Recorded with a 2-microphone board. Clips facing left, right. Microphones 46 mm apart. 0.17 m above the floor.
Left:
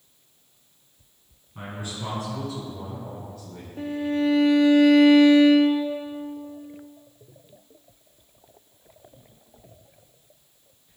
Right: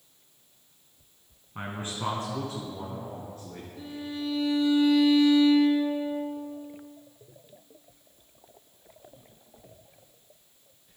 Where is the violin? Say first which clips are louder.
Left 11 dB; 60° left (ahead or behind), 0.9 m.